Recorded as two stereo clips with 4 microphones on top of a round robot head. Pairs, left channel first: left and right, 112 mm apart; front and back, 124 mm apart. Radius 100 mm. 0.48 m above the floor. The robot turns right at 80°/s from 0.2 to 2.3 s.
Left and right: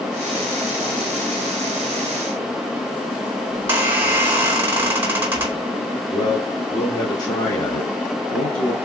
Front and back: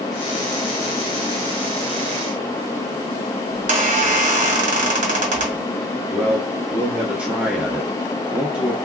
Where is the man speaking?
105° left, 1.2 m.